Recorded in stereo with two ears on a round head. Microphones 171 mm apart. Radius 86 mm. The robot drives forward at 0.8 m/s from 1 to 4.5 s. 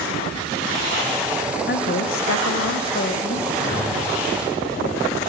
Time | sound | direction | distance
1.7 | a woman speaking | 50° left (ahead or behind) | 0.8 m
3.5 | a whoosh | 75° left (ahead or behind) | 4 m